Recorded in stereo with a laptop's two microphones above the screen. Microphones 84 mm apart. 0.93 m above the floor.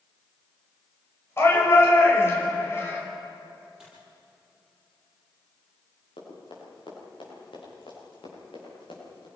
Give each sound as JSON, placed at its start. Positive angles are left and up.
{"t": 1.4, "sound": "a shout", "side_deg": 30, "distance_m": 5.0}
{"t": 3.8, "sound": "a dropped coin", "side_deg": -10, "distance_m": 8.0}
{"t": 6.2, "sound": "running footsteps", "side_deg": 85, "distance_m": 9.5}